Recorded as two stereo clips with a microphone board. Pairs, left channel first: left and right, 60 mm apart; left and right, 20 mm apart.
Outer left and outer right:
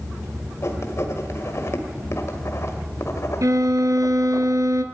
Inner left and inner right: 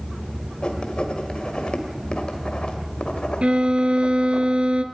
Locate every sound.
0.6 s writing: 55° left (ahead or behind), 2.5 m
3.4 s a violin: 75° right (ahead or behind), 1.5 m